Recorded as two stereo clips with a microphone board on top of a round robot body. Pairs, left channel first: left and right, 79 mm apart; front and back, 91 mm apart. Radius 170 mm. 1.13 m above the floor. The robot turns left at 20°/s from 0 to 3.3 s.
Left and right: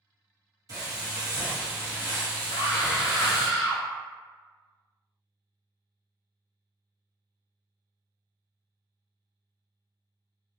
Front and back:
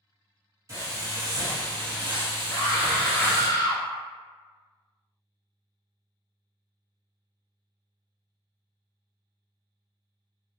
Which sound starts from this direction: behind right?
Frying, at 0.7 s.